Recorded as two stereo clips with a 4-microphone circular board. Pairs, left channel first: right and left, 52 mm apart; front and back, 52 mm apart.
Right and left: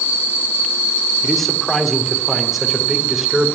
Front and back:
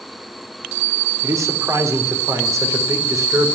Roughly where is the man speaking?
Behind.